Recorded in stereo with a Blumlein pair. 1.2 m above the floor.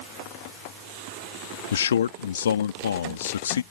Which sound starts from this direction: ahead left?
A man speaking, at 1.7 s.